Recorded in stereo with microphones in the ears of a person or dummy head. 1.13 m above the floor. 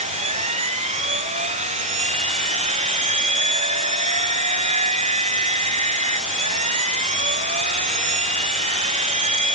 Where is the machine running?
35° right (ahead or behind).